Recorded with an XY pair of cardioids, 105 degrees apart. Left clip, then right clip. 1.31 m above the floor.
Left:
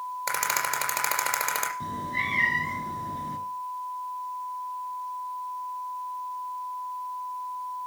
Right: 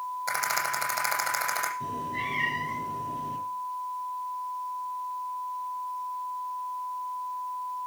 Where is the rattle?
65° left, 5.5 m.